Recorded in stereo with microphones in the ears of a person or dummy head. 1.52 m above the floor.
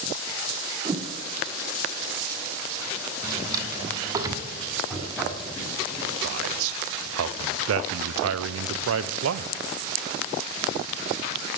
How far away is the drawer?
About 1.3 m.